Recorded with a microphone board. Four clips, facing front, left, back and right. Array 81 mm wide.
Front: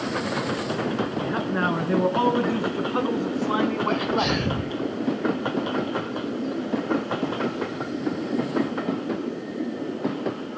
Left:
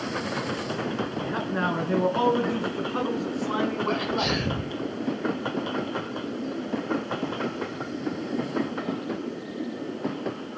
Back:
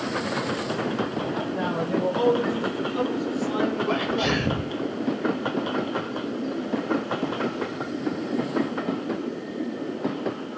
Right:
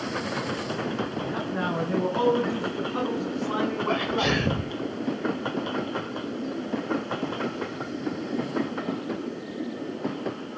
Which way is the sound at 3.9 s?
115° right.